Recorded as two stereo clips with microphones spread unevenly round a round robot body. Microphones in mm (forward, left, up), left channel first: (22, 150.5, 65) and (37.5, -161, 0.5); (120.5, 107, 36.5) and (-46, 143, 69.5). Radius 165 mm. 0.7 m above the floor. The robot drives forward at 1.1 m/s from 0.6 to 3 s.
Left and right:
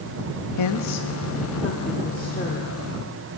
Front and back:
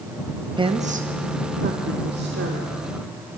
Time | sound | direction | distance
0.6 | a woman speaking | 105° left | 1.1 m